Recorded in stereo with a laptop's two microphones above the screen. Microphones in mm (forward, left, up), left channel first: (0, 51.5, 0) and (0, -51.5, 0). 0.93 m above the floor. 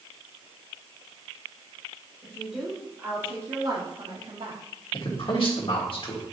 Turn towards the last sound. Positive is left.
turn(degrees=55)  # may be behind; listen again after turning